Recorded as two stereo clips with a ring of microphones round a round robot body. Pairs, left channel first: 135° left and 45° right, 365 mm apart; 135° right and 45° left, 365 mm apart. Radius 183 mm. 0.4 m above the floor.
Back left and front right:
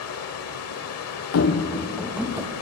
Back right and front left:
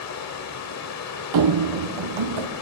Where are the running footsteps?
85° left, 0.9 m; by 2.5 s 35° left, 1.8 m.